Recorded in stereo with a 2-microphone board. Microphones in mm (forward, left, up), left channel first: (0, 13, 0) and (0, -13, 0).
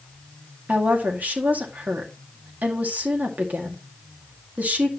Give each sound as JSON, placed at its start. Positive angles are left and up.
{"t": 0.7, "sound": "a woman speaking", "side_deg": -80, "distance_m": 2.5}